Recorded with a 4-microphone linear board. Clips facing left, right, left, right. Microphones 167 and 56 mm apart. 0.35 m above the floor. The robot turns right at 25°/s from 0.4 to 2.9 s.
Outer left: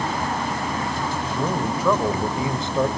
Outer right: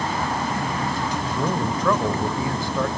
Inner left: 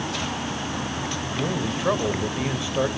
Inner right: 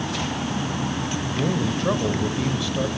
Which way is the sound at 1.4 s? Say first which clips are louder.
Even, inner right 3 dB; 5° left.